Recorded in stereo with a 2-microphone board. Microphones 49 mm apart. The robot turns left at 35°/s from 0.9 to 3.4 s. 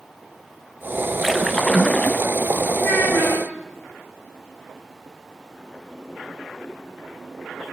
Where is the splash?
175° right, 0.5 m; by 2.2 s 150° left, 0.5 m.